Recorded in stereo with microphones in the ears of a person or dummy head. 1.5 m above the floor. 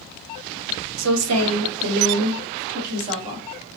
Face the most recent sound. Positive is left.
turn(degrees=-35)  # may be behind; listen again after turning